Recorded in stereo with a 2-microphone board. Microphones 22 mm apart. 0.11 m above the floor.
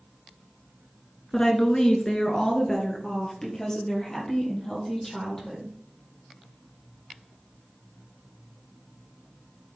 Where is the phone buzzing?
No phone buzzing in this recording.